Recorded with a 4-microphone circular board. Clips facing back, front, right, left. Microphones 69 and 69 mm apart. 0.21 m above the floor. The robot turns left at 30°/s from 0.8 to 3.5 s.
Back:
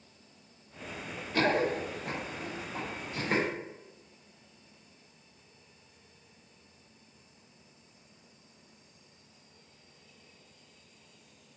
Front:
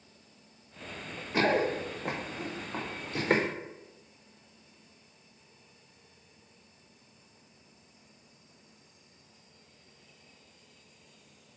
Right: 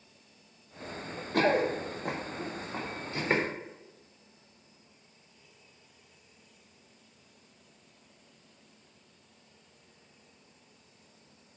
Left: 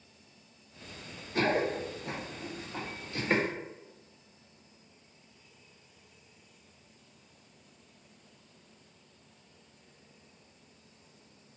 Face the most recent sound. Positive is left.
turn(degrees=-35)